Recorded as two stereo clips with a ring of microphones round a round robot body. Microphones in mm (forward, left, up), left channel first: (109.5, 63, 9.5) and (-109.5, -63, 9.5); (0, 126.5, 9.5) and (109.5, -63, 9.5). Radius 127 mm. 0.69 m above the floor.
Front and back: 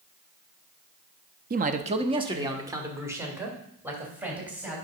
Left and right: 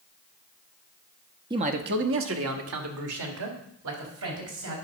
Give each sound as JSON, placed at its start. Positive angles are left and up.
{"t": 1.5, "sound": "a man speaking", "azimuth_deg": -120, "distance_m": 0.6}